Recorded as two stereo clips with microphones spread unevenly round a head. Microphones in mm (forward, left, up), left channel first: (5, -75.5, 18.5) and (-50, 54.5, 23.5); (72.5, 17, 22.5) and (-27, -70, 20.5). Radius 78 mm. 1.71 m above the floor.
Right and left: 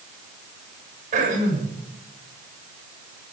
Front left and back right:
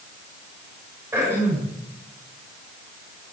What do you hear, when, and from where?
1.1 s throat clearing: 145° left, 7.5 m